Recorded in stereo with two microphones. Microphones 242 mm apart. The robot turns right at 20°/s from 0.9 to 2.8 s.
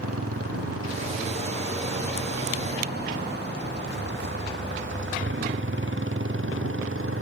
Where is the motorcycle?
75° right (ahead or behind); by 7.2 s 60° right (ahead or behind).